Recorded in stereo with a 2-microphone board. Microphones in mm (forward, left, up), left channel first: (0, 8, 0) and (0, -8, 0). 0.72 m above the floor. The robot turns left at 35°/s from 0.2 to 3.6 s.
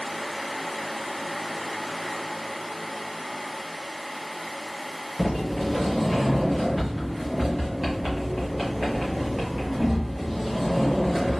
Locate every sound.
5.2 s a sliding door: 10° right (ahead or behind), 1.4 m